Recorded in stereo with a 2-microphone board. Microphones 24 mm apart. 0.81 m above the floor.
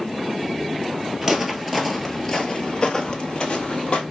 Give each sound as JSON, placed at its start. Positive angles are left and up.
{"t": 1.2, "sound": "footsteps", "side_deg": -15, "distance_m": 0.9}